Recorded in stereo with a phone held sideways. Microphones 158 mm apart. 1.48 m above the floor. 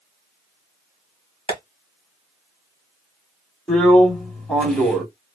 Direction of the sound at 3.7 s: 10° left (ahead or behind).